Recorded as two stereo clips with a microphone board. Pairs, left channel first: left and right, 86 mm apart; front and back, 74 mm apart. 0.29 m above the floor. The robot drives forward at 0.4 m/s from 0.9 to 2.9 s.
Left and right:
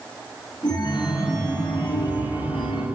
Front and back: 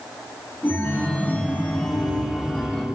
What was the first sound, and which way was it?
A chime, 65° left.